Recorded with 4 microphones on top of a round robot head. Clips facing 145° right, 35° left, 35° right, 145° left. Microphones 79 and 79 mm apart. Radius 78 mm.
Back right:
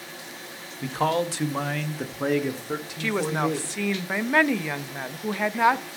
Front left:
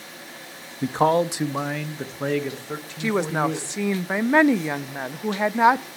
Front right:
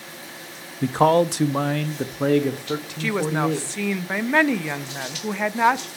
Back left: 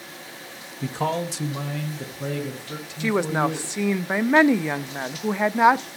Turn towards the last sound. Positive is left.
turn(degrees=85)